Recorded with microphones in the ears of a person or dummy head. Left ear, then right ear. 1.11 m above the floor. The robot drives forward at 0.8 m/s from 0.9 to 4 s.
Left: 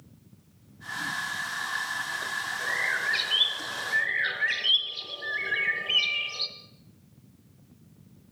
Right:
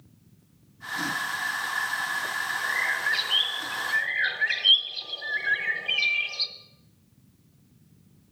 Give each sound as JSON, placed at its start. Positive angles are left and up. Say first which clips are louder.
{"t": 2.6, "sound": "a bird", "louder": "right 1 dB", "side_deg": -30, "distance_m": 2.5}